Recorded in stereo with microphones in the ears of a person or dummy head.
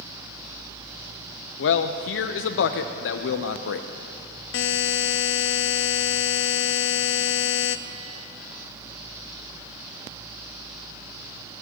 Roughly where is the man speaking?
Left.